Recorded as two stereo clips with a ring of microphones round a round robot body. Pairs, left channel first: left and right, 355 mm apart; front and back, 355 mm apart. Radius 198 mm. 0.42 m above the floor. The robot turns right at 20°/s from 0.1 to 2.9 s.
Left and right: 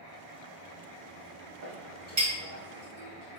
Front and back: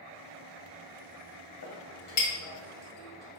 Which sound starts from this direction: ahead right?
A clink, at 1.6 s.